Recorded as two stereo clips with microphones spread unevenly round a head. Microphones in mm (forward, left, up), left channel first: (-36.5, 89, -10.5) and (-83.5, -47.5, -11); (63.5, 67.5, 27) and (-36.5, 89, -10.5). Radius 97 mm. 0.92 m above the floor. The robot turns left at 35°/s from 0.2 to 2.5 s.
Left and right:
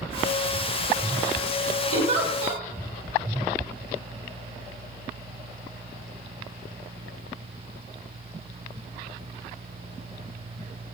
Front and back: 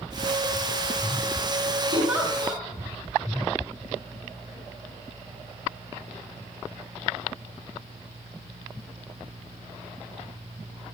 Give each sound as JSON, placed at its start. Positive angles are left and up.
{"t": 1.9, "sound": "a giggle", "azimuth_deg": -95, "distance_m": 0.9}